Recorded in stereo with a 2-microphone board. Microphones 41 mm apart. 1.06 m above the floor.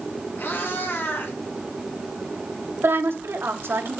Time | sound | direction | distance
0.4 | a cat meowing | 60° left (ahead or behind) | 4 m
2.8 | a woman speaking | 80° right | 2.5 m